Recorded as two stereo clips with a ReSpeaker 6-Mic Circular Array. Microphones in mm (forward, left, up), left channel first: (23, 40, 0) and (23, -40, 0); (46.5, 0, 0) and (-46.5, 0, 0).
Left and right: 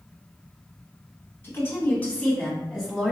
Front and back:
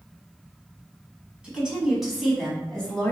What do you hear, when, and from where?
1.4 s a woman speaking: 110° left, 1.5 m; by 3.1 s 5° right, 1.3 m